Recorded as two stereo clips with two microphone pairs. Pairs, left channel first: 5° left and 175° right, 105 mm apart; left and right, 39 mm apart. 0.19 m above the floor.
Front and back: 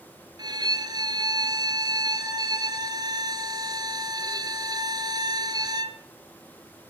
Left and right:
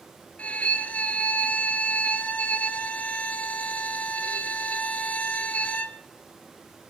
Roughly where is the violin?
Behind left.